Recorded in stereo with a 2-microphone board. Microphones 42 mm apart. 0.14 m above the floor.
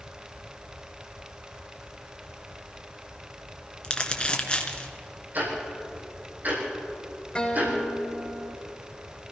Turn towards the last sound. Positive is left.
turn(degrees=25)  # may be behind; listen again after turning